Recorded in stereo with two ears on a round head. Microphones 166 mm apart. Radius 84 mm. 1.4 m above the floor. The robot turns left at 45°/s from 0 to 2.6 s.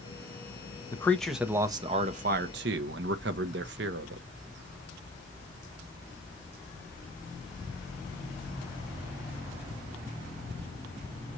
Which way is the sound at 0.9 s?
15° left.